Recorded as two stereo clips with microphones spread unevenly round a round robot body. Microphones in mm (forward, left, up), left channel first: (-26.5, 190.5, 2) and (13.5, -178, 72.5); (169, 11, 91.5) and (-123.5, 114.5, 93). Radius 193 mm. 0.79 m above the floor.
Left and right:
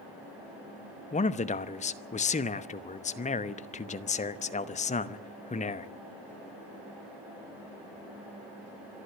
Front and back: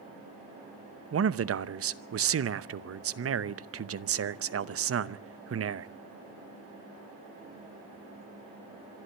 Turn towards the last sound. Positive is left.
turn(degrees=145)